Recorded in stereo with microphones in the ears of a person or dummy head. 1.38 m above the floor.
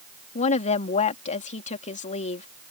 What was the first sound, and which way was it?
A woman speaking, 40° left (ahead or behind).